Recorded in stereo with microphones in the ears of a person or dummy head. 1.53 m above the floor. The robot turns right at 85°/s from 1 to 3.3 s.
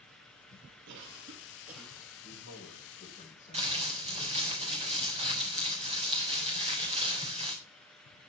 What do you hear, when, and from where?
0.9 s a cough: 65° right, 3 m; by 2.1 s 30° left, 3 m
2.2 s a man speaking: 65° left, 4.5 m; by 4.5 s 160° left, 4.5 m
3.5 s crumpling: 30° right (ahead or behind), 3.5 m